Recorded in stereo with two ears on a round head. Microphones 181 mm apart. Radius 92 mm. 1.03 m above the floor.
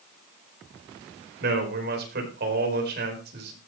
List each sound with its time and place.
1.4 s a man speaking: 55° right (ahead or behind), 5 m